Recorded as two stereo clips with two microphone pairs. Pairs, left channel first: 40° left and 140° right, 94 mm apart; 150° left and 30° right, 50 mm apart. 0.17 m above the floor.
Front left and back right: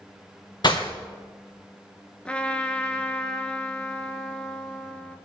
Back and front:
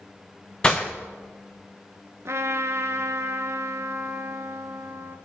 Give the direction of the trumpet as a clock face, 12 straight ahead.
1 o'clock.